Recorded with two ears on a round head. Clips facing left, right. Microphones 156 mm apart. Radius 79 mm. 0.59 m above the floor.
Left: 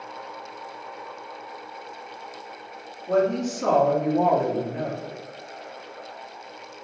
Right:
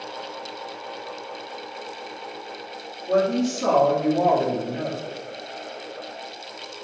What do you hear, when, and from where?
3.1 s a woman speaking: 5° right (ahead or behind), 1.2 m